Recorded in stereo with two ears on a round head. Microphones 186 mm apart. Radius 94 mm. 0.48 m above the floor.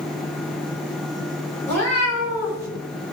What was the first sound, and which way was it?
A cat meowing, 10° left (ahead or behind).